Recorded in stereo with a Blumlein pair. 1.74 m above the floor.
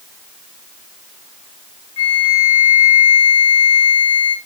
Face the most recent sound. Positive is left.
turn(degrees=50)